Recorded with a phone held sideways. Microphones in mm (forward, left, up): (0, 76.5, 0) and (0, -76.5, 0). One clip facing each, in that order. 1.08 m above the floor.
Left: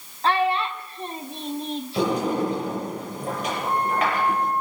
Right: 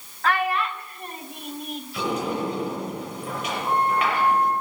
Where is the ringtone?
I don't hear a ringtone.